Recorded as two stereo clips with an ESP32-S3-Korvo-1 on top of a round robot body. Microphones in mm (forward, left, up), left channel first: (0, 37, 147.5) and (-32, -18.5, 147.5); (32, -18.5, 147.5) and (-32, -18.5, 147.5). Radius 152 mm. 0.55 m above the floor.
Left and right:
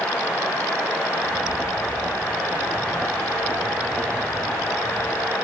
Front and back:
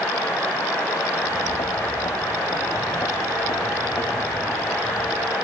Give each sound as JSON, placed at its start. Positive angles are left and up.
{"t": 1.2, "sound": "footsteps", "azimuth_deg": -30, "distance_m": 5.0}